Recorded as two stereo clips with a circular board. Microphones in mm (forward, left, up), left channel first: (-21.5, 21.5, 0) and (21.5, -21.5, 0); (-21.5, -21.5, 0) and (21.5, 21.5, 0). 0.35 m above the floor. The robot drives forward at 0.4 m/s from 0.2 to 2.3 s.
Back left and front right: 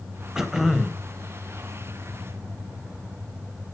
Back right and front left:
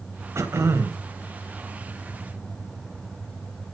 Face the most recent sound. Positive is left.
turn(degrees=65)